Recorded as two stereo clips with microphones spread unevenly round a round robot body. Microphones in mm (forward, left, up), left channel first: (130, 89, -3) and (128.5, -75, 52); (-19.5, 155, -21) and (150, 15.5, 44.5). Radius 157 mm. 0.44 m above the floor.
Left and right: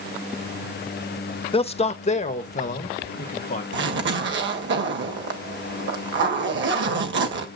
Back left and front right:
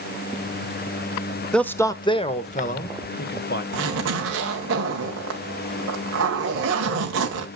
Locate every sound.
1.5 s a man speaking: 65° left, 1.3 m; by 3.6 s 120° left, 2 m
3.7 s a zipper: 95° right, 2 m